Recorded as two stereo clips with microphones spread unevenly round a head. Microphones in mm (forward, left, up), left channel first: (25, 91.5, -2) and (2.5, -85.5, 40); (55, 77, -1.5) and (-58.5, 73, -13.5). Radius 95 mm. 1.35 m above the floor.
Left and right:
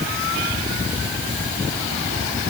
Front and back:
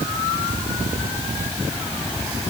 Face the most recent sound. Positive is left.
No sound to turn to.